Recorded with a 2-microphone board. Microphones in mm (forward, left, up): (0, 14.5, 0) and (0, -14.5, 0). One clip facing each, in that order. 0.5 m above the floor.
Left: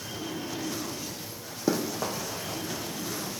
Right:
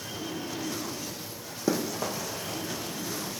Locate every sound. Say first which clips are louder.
1.7 s running footsteps: even; 10° left (ahead or behind), 1.4 m